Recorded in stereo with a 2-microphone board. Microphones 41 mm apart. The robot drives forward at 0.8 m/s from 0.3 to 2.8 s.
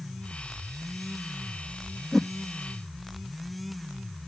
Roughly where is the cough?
No cough in this recording.